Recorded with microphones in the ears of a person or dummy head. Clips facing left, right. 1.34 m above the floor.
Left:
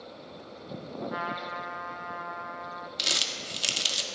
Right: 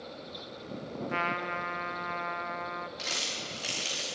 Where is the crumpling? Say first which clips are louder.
Left 1 dB; 50° left (ahead or behind), 1.3 m.